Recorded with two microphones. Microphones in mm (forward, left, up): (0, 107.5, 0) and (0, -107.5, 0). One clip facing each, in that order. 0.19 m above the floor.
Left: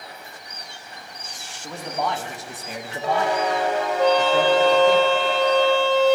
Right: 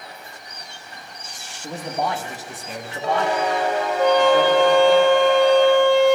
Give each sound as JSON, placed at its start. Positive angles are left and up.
{"t": 1.6, "sound": "a man speaking", "side_deg": -25, "distance_m": 1.0}
{"t": 4.0, "sound": "a trumpet", "side_deg": -15, "distance_m": 1.1}